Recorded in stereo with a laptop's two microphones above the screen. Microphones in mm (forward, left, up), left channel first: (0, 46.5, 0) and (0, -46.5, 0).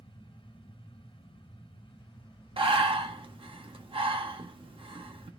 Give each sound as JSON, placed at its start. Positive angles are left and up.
{"t": 0.0, "sound": "a fan", "side_deg": 65, "distance_m": 0.8}
{"t": 2.6, "sound": "breathing", "side_deg": -70, "distance_m": 0.8}